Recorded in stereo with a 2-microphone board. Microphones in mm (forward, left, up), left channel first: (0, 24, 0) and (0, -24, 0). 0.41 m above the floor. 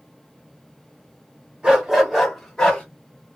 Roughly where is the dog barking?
Right.